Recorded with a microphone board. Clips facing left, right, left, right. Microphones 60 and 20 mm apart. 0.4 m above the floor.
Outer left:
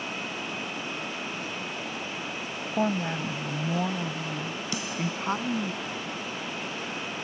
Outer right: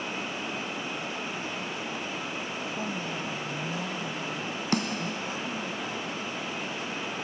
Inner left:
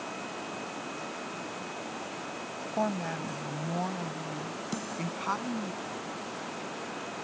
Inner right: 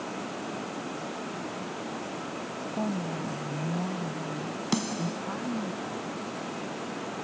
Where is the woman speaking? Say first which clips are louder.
Outer left 10 dB, inner left 1 dB; 50° left (ahead or behind); by 5.7 s 55° left (ahead or behind).